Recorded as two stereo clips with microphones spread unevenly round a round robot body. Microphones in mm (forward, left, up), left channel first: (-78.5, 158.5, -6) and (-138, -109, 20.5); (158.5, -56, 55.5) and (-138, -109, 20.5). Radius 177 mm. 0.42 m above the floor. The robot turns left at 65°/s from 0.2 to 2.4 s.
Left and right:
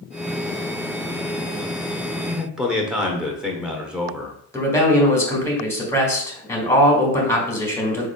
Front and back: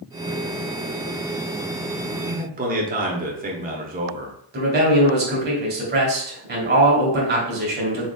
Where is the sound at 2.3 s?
175° left, 1.1 m; by 4.4 s 165° left, 1.1 m.